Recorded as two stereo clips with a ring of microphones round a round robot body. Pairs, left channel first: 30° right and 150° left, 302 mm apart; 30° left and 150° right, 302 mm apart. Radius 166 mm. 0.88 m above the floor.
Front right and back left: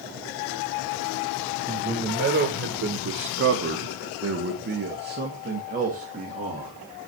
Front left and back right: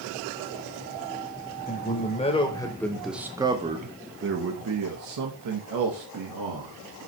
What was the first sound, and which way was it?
A man speaking, 90° left.